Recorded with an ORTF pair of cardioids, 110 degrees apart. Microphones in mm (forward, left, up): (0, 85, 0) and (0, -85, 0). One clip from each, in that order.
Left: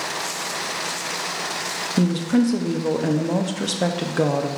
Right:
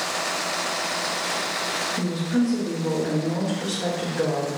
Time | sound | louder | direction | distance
2.0 | a woman speaking | left 4 dB | 65° left | 0.7 m